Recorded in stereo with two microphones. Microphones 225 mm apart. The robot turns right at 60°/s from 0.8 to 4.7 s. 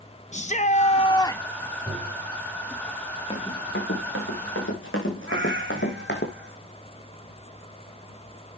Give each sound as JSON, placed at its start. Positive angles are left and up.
{"t": 0.3, "sound": "a shout", "azimuth_deg": 130, "distance_m": 0.7}
{"t": 1.9, "sound": "tapping", "side_deg": -5, "distance_m": 5.5}
{"t": 3.3, "sound": "running footsteps", "side_deg": 25, "distance_m": 4.5}
{"t": 5.3, "sound": "a cat meowing", "side_deg": -55, "distance_m": 3.0}